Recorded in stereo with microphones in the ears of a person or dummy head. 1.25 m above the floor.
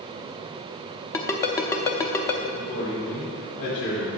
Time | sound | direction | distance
1.1 | a ringtone | 20° left (ahead or behind) | 0.7 m
2.5 | a man speaking | 55° left (ahead or behind) | 2.5 m